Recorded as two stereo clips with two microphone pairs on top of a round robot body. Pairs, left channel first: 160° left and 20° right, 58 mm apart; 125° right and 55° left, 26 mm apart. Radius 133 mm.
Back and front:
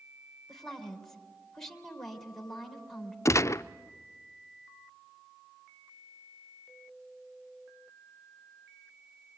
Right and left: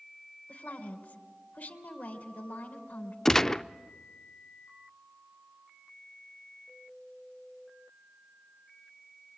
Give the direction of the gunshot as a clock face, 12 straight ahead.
7 o'clock.